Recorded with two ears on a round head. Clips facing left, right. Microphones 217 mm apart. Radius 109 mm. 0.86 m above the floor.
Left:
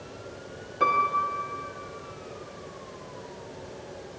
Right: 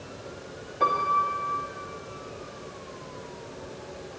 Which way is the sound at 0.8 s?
10° left (ahead or behind).